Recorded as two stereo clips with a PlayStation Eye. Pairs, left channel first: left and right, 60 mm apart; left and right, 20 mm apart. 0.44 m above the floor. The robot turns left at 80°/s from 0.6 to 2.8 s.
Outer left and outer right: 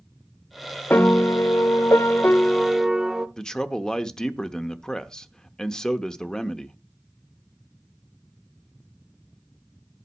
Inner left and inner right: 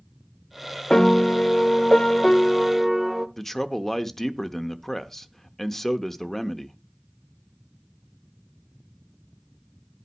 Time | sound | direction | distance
0.9 | a piano | 145° left | 0.5 m
3.4 | a man speaking | 10° left (ahead or behind) | 0.7 m